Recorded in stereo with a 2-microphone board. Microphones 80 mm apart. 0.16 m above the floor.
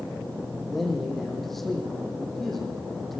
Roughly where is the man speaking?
Centre.